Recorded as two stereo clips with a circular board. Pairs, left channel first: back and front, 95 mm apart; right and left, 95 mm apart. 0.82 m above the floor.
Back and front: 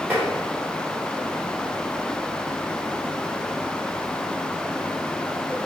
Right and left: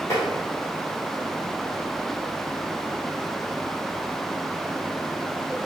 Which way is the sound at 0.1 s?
60° right.